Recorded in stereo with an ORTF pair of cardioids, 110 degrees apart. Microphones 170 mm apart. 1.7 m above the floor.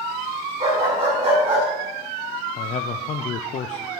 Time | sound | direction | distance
0.6 | a dog barking | 35° right | 6.5 m
2.6 | a man speaking | 45° left | 0.6 m